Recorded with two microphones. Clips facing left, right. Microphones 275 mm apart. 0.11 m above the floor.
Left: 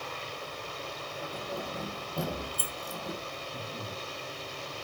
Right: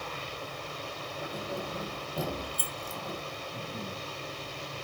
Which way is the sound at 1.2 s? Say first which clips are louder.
Right 1 dB; 15° right (ahead or behind).